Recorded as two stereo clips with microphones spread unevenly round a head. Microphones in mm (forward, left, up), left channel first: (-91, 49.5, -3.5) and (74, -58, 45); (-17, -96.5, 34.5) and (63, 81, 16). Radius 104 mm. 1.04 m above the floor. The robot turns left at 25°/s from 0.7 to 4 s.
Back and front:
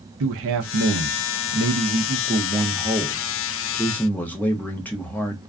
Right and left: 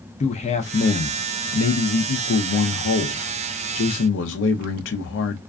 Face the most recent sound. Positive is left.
turn(degrees=-140)